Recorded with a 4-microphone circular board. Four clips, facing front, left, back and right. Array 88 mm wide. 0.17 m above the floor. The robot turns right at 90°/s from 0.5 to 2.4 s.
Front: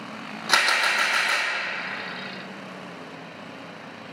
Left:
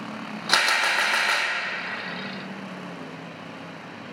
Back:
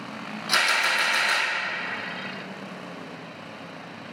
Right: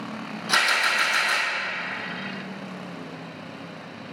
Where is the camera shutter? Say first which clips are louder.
Even, front 2 dB; 35° left, 2.5 m; by 1.5 s 120° left, 2.5 m.